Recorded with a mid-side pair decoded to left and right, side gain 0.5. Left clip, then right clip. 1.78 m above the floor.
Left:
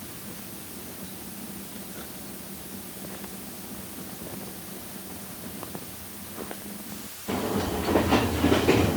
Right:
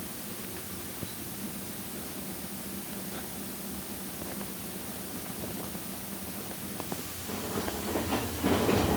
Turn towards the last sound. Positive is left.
No sound to turn to.